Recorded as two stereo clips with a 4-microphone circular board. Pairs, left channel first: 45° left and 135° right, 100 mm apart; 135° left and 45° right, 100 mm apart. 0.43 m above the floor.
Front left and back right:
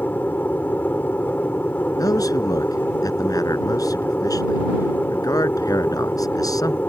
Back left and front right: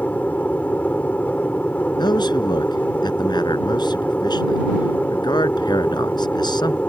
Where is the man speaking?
95° left.